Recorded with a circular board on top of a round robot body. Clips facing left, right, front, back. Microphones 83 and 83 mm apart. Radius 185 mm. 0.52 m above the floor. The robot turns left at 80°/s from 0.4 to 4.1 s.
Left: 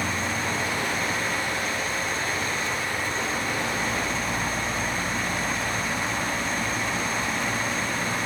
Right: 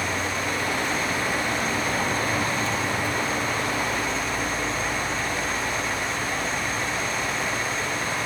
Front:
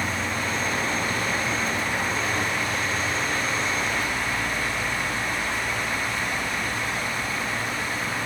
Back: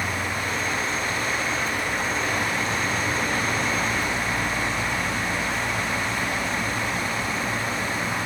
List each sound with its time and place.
0.0 s an insect: 55° left, 2.5 m; by 8.2 s 120° left, 2.5 m